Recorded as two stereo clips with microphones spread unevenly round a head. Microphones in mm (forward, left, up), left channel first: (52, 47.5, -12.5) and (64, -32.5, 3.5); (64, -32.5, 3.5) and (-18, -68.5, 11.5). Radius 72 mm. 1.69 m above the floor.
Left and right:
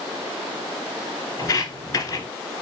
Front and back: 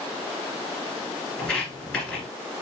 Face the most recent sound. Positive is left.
turn(degrees=105)